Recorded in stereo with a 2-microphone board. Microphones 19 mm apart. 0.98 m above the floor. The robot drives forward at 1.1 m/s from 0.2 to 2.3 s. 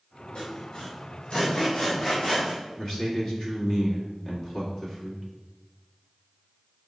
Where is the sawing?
70° left (ahead or behind), 2.5 m; by 2.6 s 40° left (ahead or behind), 4 m.